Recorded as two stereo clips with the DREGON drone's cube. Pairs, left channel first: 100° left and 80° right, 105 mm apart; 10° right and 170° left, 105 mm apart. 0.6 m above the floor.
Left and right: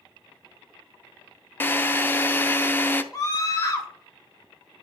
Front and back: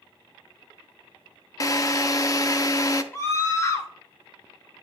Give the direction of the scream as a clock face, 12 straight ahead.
10 o'clock.